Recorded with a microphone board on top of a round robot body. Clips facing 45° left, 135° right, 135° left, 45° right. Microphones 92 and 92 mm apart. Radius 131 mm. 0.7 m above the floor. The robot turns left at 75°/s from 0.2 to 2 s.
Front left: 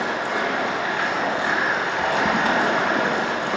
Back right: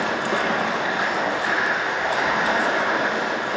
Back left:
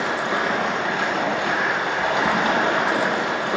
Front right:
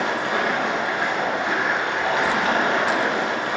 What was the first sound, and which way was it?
Running water, 145° right.